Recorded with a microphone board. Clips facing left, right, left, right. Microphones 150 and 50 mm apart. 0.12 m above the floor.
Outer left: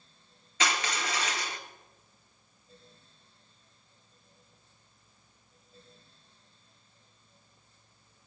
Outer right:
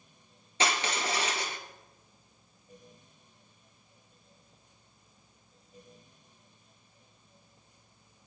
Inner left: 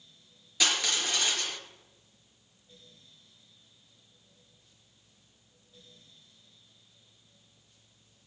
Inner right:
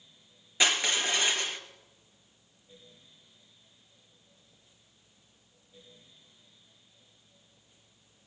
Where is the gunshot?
I don't hear a gunshot.